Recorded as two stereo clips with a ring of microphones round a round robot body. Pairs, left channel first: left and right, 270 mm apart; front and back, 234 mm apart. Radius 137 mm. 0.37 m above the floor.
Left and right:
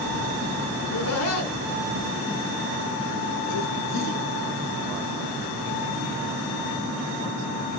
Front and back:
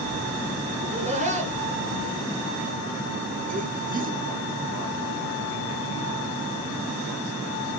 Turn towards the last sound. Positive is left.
turn(degrees=130)